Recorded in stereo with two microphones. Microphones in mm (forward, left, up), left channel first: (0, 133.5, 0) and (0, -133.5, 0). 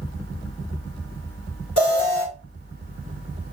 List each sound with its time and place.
1.8 s an alarm: 60° left (ahead or behind), 1.8 m